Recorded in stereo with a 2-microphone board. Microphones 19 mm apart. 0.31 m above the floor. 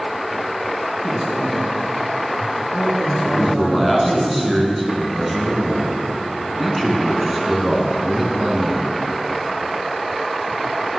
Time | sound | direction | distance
1.0 | a man speaking | 45° left (ahead or behind) | 4.5 m
3.2 | a man speaking | centre (ahead or behind) | 3 m